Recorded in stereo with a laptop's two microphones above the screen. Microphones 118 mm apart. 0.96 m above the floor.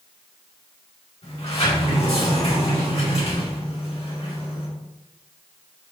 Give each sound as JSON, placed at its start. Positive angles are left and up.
{"t": 1.2, "sound": "a sliding door", "side_deg": 60, "distance_m": 3.5}